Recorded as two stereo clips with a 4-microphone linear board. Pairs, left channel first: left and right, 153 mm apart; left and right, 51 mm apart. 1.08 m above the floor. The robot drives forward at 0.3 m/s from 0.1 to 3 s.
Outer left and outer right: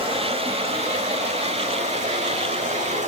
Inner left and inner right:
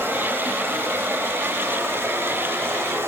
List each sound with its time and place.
0.0 s running water: 40° right (ahead or behind), 1.4 m; by 3.1 s 50° right (ahead or behind), 1.1 m